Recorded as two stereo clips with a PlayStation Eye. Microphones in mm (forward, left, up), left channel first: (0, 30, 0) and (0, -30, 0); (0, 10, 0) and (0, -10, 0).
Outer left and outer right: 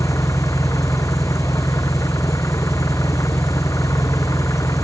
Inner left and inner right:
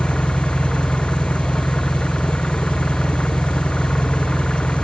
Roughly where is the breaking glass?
I don't hear breaking glass.